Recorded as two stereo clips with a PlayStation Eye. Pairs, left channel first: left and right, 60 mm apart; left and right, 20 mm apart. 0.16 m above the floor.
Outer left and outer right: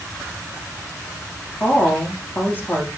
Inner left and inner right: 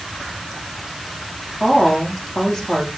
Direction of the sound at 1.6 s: 30° left (ahead or behind).